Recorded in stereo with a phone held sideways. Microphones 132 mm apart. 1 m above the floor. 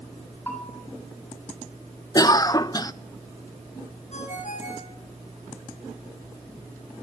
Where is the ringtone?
60° left (ahead or behind), 5 m.